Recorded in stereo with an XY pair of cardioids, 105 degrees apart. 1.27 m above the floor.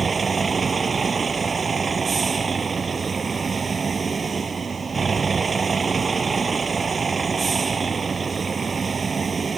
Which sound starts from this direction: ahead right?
A vehicle, at 0.0 s.